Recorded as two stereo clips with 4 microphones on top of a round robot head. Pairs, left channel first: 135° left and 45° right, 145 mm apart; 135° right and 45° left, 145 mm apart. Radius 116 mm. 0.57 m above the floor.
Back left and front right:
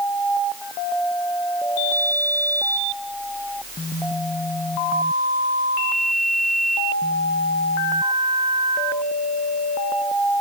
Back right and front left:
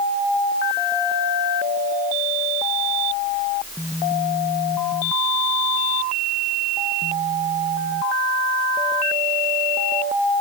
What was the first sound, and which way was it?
Only background noise.